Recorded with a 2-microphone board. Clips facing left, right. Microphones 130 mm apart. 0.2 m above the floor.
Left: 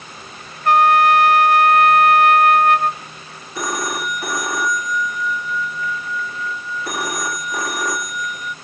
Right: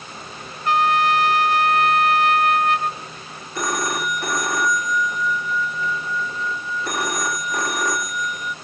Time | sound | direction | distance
0.7 | a trumpet | 55° left (ahead or behind) | ?
3.5 | a phone ringing | centre (ahead or behind) | ?